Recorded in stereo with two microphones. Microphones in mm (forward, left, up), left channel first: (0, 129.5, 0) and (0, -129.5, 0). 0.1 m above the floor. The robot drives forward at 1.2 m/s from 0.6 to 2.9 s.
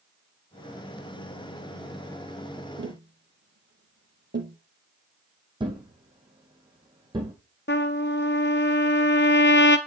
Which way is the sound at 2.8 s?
50° right (ahead or behind).